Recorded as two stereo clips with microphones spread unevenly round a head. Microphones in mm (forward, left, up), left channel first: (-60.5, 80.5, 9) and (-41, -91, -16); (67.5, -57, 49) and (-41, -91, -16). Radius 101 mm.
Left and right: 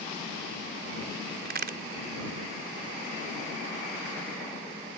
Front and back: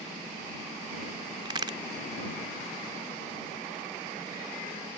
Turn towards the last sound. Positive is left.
turn(degrees=-110)